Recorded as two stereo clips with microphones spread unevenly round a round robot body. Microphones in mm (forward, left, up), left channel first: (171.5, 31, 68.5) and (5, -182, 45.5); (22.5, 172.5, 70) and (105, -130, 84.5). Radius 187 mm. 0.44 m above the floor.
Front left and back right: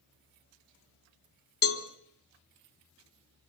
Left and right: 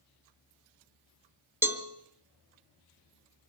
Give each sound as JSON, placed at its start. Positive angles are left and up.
{"t": 1.6, "sound": "a cowbell", "azimuth_deg": 10, "distance_m": 1.9}